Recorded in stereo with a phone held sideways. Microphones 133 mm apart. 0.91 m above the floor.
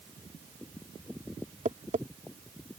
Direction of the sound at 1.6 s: 70° right (ahead or behind).